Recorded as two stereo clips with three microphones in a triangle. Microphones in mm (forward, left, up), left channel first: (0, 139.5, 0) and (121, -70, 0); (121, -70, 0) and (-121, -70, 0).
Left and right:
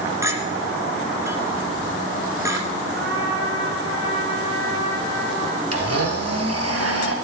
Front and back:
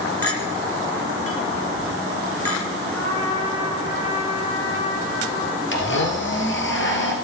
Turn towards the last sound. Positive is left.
turn(degrees=-40)